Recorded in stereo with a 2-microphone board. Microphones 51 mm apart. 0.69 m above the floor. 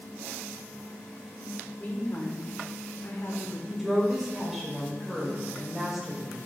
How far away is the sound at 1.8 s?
About 1.9 m.